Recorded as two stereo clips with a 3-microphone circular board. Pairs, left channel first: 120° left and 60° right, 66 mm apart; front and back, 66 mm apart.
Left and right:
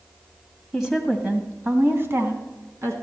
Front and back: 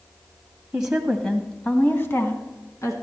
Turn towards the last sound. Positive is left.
turn(degrees=-25)